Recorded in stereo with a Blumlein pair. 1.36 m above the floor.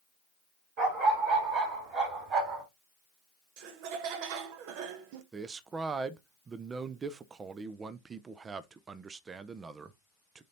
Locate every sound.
0.8 s a dog barking: 40° right, 3 m; by 2.6 s 30° right, 4 m
3.6 s laughter: 45° right, 1.2 m
5.3 s a man speaking: 20° right, 0.7 m